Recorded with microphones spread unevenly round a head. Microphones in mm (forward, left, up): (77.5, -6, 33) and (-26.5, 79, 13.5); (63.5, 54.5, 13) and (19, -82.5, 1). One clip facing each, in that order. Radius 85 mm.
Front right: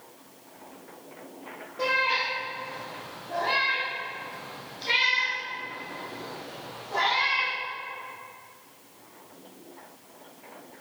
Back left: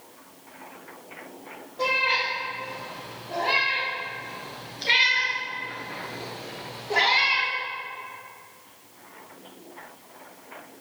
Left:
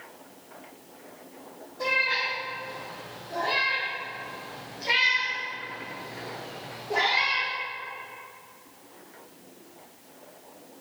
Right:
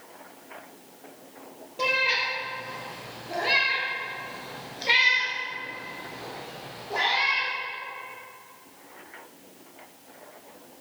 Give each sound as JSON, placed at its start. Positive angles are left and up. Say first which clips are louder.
{"t": 1.8, "sound": "a cat meowing", "louder": "back left 1 dB, right 2 dB", "azimuth_deg": -120, "distance_m": 2.5}